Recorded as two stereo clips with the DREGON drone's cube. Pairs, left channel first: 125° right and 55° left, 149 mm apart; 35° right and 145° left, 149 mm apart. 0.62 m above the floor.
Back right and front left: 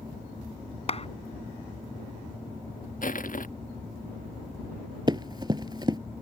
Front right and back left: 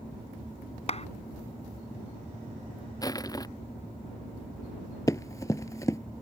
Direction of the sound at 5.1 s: 20° left.